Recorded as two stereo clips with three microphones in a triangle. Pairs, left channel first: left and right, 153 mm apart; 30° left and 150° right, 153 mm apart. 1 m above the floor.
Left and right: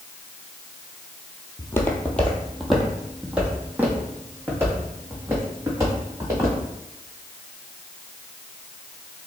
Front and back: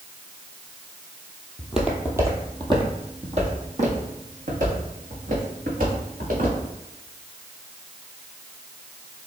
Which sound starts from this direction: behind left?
Footsteps, at 1.6 s.